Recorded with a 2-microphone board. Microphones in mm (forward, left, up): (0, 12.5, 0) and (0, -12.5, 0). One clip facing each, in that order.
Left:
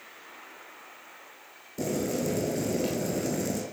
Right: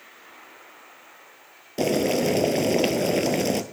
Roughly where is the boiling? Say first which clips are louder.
Right 7 dB; right.